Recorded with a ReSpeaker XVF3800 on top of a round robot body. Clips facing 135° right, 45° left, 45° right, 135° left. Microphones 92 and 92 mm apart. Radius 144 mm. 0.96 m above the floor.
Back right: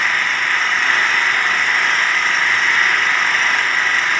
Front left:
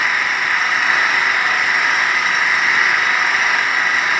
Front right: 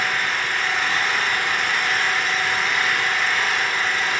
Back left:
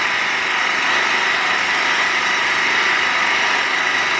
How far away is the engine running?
About 0.7 m.